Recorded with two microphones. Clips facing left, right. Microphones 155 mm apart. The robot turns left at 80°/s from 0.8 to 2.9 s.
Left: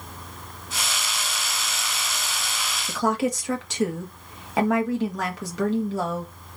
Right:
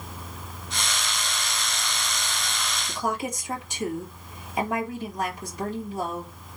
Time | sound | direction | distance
2.9 | a woman speaking | 80° left | 1.4 m